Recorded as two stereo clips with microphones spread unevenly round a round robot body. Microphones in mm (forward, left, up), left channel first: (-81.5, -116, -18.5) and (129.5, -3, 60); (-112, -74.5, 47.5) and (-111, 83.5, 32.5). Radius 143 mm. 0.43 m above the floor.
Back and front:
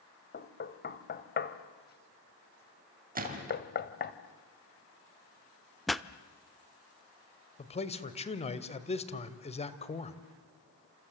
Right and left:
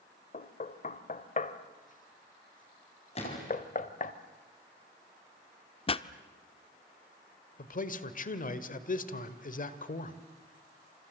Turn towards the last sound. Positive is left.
turn(degrees=-110)